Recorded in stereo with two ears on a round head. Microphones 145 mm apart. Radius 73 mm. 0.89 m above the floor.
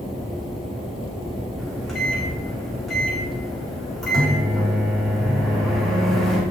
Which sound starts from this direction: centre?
A microwave, at 1.6 s.